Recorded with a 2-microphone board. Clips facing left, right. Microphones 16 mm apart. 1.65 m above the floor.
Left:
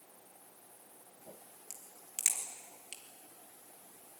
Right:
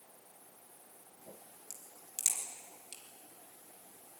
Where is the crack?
55° left (ahead or behind), 2.5 m.